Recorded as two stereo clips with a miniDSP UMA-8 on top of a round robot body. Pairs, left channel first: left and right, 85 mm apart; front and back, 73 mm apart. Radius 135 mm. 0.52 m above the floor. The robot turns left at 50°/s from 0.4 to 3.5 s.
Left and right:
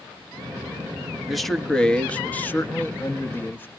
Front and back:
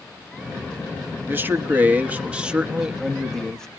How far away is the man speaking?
About 1.3 m.